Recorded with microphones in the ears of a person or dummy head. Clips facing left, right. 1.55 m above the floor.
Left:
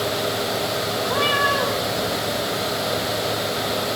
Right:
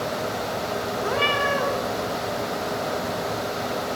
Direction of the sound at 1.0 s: 35° right (ahead or behind).